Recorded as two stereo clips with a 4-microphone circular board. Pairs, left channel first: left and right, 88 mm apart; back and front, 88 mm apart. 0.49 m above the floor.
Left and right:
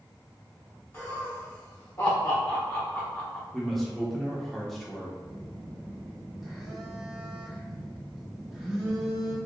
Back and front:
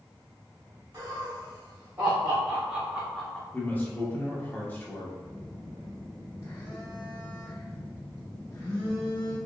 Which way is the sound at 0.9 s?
35° left.